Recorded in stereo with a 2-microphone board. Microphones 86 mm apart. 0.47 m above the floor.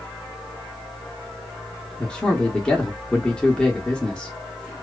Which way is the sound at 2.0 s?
10° left (ahead or behind).